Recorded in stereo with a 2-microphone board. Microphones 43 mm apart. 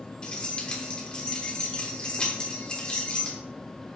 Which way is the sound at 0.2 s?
20° left (ahead or behind).